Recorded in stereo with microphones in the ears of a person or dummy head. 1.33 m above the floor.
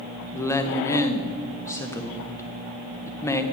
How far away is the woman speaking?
About 0.6 m.